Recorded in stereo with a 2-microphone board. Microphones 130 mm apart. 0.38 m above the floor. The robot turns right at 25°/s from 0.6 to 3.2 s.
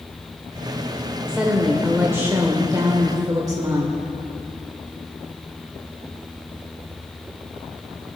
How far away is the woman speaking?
About 0.9 m.